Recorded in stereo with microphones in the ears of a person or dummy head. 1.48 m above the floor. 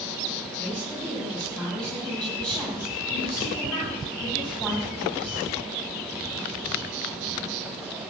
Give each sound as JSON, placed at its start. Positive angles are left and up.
{"t": 0.6, "sound": "a woman speaking", "side_deg": 5, "distance_m": 8.5}